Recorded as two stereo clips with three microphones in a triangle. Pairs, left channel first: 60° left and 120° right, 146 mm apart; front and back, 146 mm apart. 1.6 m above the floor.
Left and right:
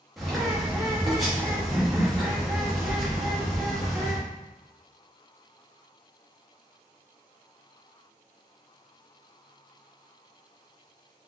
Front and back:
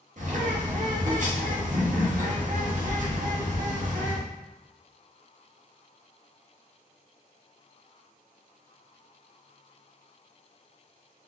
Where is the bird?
150° left, 0.8 m.